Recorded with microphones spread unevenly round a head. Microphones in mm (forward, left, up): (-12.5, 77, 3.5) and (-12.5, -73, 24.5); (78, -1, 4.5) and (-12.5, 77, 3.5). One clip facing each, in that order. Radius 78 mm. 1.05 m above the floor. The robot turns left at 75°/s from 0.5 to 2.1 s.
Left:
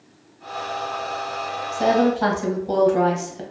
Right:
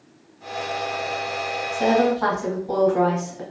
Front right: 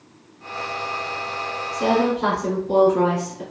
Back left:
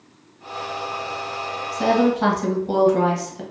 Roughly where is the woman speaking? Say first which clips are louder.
Left 1 dB, back left 1 dB; behind.